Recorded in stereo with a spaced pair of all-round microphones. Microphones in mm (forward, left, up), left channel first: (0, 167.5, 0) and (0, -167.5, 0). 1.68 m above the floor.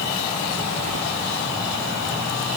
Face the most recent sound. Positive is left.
No sound to turn to.